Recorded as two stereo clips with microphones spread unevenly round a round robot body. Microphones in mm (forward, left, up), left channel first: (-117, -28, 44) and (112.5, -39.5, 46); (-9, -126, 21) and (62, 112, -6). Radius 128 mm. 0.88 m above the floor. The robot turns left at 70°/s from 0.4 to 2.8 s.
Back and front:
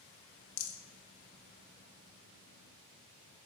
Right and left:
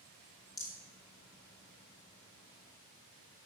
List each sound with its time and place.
0.6 s a rattle: 175° left, 0.9 m; by 0.8 s 160° left, 0.9 m